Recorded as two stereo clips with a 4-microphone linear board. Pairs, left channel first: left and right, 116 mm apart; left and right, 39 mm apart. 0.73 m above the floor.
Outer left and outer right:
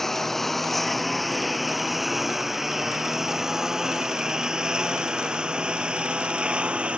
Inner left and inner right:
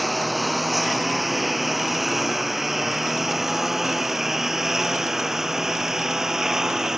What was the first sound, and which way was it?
A lawn mower, 5° left (ahead or behind).